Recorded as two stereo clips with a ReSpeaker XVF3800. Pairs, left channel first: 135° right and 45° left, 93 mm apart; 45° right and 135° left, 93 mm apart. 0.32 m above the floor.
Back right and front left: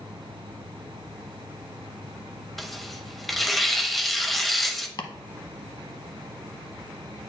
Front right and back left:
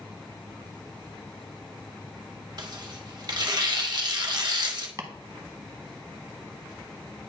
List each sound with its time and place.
2.6 s tearing paper: 135° left, 0.8 m
5.0 s chopping: 170° right, 0.8 m